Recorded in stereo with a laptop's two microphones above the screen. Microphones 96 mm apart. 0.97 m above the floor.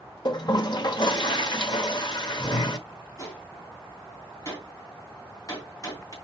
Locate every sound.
0.2 s a toilet flushing: 50° left (ahead or behind), 1.2 m
3.2 s a gunshot: 35° left (ahead or behind), 2.5 m